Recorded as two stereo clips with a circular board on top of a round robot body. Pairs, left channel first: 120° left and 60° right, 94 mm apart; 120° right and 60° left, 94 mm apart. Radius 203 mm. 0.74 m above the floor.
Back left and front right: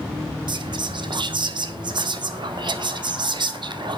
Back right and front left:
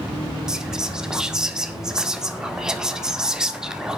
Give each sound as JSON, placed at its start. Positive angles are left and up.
{"t": 0.5, "sound": "whispering", "azimuth_deg": -25, "distance_m": 2.0}